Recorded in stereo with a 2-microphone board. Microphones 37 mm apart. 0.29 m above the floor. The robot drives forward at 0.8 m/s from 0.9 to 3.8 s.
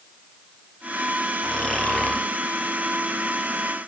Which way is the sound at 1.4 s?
25° left (ahead or behind).